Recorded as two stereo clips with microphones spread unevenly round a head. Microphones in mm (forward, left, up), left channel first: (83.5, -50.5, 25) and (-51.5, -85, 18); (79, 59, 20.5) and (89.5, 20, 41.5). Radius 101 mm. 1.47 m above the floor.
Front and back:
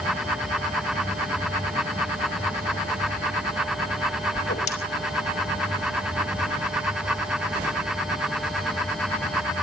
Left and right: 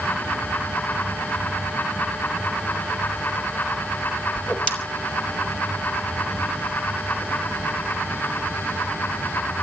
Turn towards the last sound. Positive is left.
turn(degrees=35)